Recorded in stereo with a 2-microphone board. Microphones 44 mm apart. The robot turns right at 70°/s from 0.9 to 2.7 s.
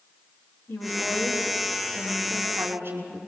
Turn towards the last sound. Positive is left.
turn(degrees=-130)